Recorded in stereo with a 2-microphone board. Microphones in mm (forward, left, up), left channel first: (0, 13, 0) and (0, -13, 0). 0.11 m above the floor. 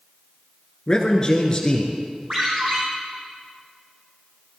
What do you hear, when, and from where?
0.9 s a man speaking: 25° left (ahead or behind), 1.3 m
2.3 s a ringtone: 40° right (ahead or behind), 3.5 m